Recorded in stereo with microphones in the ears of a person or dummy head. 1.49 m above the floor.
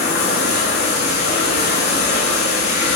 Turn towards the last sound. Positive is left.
turn(degrees=50)  # may be behind; listen again after turning